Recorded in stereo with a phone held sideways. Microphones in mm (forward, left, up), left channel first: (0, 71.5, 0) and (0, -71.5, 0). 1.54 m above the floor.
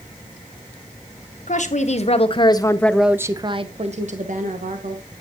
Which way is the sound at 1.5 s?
60° left (ahead or behind).